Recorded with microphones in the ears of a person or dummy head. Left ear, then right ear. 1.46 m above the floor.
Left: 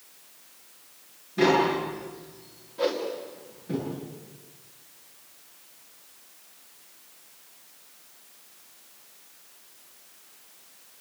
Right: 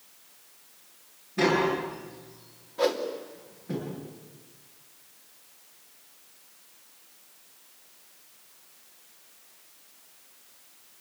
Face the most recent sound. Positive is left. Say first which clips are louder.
# right 1 dB
turn(degrees=-25)  # may be behind; listen again after turning